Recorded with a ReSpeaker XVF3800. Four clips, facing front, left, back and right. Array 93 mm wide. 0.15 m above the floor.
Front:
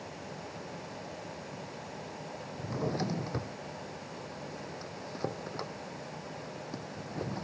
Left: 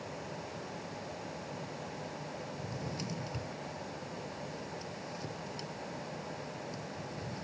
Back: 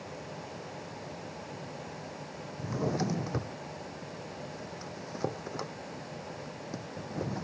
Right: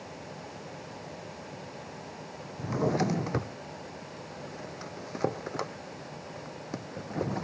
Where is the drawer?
100° right.